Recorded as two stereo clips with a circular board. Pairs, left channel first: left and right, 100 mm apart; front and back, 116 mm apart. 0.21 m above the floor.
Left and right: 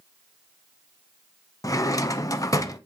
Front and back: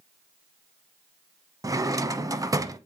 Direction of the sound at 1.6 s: 130° left.